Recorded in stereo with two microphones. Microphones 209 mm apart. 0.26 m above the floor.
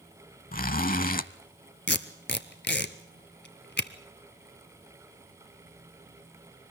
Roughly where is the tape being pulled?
Left.